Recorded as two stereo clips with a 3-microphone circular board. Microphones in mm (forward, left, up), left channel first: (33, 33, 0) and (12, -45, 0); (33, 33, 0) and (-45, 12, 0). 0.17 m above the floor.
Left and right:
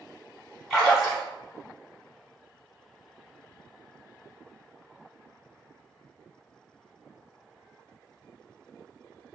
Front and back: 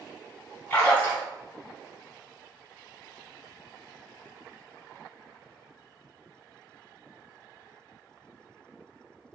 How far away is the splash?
About 1.6 m.